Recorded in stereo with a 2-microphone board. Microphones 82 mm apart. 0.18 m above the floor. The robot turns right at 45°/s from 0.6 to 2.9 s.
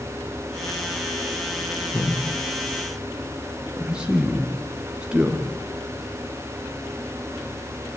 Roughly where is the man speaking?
Left.